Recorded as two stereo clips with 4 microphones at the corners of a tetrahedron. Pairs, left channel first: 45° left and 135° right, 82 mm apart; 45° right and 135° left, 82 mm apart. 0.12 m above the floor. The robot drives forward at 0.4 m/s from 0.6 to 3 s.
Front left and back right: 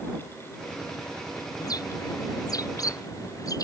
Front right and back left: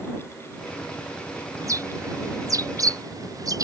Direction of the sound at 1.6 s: 85° left.